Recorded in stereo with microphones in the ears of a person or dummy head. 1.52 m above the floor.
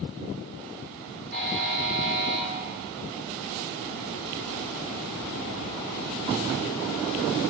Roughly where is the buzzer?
Right.